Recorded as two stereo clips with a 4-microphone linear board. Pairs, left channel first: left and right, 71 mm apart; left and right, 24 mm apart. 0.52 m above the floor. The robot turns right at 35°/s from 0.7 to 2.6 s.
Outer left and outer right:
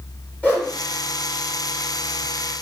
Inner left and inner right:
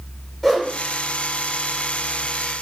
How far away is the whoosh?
About 1.3 m.